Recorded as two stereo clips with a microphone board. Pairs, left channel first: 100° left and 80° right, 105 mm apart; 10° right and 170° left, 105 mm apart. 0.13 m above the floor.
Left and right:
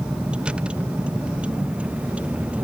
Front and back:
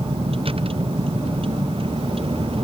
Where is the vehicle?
160° right.